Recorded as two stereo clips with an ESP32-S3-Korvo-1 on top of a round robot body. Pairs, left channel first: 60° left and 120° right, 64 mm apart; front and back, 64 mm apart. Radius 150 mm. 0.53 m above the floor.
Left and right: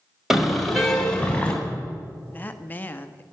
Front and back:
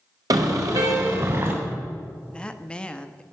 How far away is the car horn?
About 2 m.